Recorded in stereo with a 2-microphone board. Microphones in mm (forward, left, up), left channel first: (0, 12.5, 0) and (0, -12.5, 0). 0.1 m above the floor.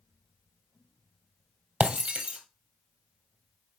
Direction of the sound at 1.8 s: 55° right (ahead or behind).